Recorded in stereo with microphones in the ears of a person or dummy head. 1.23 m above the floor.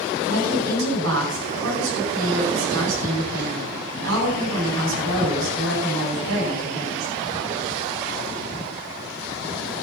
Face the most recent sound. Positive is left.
turn(degrees=-85)